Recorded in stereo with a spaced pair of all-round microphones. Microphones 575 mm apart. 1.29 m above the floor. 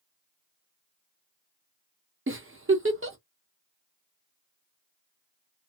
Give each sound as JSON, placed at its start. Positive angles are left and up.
{"t": 2.3, "sound": "a giggle", "side_deg": -25, "distance_m": 0.6}